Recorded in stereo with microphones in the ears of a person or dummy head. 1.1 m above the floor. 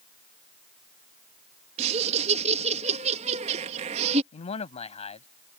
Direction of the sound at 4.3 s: 40° left (ahead or behind).